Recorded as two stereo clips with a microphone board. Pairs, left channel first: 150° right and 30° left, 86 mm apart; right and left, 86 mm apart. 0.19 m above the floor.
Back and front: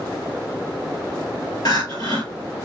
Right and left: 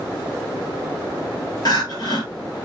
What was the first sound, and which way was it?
Crying, 120° right.